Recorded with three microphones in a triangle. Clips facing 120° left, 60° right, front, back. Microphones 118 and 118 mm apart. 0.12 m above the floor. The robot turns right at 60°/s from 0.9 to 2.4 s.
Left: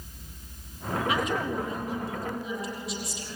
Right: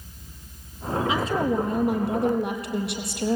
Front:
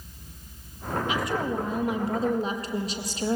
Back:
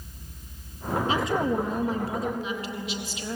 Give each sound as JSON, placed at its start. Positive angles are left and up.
{"t": 1.1, "sound": "a woman speaking", "azimuth_deg": -125, "distance_m": 3.5}